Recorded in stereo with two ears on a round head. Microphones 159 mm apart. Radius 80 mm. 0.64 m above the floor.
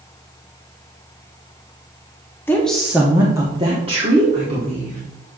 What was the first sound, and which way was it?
A woman speaking, 10° left (ahead or behind).